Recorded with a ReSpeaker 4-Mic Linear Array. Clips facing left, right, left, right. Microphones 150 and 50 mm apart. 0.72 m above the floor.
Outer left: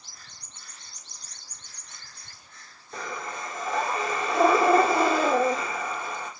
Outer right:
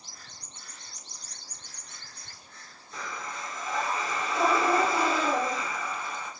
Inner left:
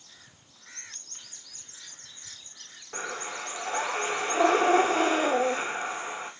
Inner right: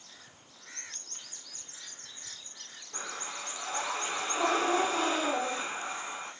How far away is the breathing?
About 1.9 m.